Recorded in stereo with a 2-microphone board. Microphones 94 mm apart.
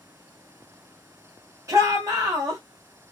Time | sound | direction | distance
1.7 | a shout | 35° right (ahead or behind) | 2.5 m